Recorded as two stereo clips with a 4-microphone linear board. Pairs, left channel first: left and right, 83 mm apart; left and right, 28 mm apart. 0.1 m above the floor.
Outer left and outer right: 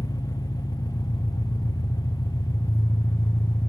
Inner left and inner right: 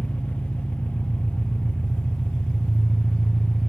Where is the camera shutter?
No camera shutter in this recording.